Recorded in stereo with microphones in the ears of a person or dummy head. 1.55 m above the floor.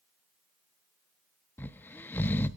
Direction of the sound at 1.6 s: 15° left (ahead or behind).